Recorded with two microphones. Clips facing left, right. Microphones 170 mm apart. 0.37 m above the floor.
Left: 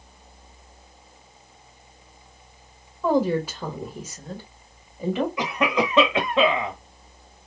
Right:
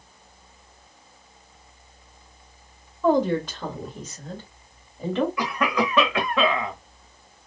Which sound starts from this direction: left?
A cough, at 5.4 s.